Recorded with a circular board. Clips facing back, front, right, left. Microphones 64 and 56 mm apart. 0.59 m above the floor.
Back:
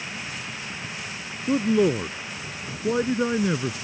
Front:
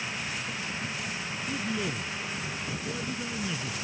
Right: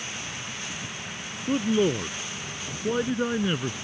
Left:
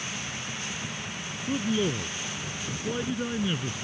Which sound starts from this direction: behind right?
A man speaking, at 1.5 s.